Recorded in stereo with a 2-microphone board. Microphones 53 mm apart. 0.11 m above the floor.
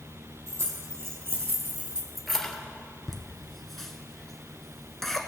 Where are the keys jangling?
60° right (ahead or behind), 2.5 m; by 2.6 s 20° left (ahead or behind), 1.3 m.